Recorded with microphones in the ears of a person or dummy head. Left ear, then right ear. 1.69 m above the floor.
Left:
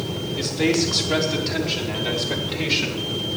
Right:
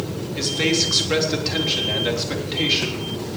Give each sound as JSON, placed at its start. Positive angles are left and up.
{"t": 0.3, "sound": "a man speaking", "side_deg": -40, "distance_m": 3.5}